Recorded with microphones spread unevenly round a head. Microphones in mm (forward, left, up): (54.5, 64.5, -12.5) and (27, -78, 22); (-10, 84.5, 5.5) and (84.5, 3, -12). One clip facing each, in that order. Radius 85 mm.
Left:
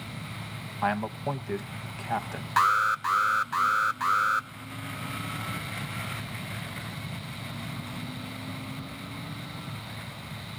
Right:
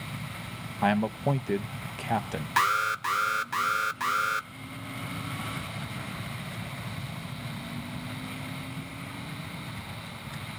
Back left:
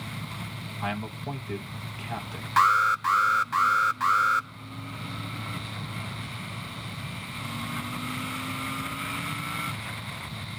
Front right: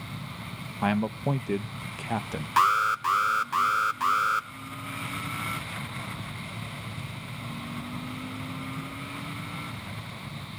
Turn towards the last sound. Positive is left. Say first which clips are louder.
# left 3 dB, back left 1 dB
turn(degrees=-35)